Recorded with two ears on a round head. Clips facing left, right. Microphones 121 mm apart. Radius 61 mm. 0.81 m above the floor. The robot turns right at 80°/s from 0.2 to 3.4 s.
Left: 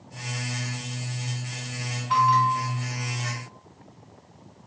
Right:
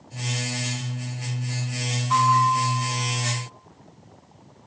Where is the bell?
30° left, 1.4 m; by 3.4 s 130° left, 1.4 m.